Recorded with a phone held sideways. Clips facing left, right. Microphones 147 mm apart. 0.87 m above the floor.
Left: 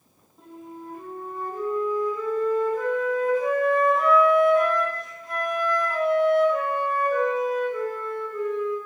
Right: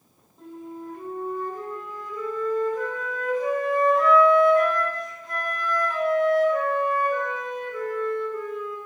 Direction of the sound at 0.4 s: 5° left (ahead or behind).